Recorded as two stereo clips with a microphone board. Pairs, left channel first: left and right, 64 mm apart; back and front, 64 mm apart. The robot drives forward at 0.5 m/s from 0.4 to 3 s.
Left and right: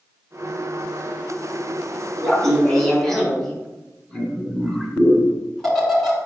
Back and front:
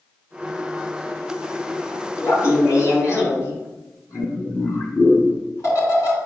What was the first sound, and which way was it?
Laughter, 175° left.